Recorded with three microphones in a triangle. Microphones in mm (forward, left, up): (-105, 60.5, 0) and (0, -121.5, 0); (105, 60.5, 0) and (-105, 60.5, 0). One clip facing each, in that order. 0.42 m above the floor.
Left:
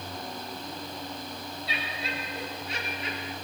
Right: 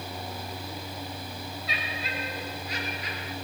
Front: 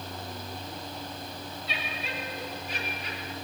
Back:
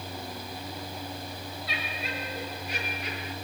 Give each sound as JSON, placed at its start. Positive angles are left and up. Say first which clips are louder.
{"t": 1.7, "sound": "laughter", "louder": "left 2 dB, back 1 dB", "azimuth_deg": 180, "distance_m": 5.5}